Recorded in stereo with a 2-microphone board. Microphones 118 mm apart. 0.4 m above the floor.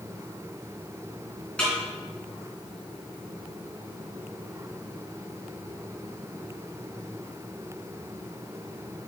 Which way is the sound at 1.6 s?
10° left (ahead or behind).